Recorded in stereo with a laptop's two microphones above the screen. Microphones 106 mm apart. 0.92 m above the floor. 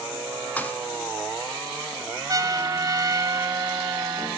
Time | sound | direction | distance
0.6 | a thud | 15° left (ahead or behind) | 1.5 m
2.3 | a trumpet | 35° right (ahead or behind) | 0.5 m